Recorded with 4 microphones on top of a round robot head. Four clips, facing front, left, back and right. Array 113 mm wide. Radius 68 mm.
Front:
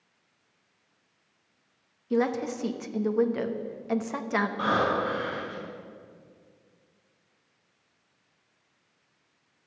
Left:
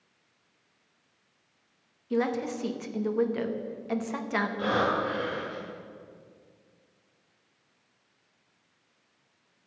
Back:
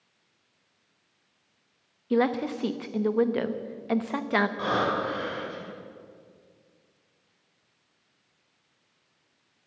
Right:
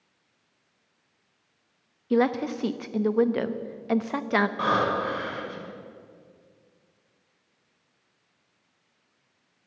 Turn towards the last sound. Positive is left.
turn(degrees=-90)